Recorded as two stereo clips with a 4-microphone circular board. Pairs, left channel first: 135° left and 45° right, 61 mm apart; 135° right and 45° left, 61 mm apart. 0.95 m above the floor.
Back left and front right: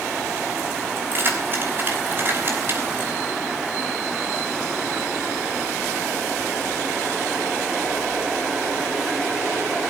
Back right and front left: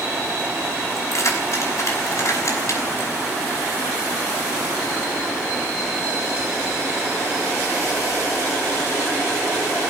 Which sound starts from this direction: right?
Keys jangling, at 1.0 s.